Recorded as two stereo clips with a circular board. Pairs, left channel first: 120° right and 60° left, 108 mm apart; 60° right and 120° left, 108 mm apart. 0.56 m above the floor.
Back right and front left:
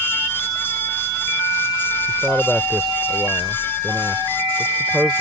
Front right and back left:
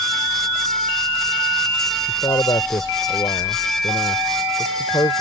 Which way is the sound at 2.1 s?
25° right.